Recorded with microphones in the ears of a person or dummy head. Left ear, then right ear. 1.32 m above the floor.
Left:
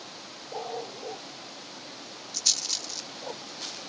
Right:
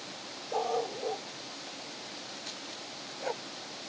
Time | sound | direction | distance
0.5 | a dog barking | 65° right (ahead or behind) | ?
2.3 | a rattle | 80° left | ?